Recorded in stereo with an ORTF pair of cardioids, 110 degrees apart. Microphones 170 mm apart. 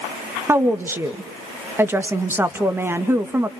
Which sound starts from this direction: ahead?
A woman speaking, at 0.5 s.